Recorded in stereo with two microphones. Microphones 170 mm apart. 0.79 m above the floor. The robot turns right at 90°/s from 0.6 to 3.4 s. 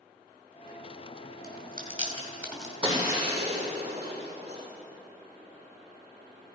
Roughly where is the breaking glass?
Right.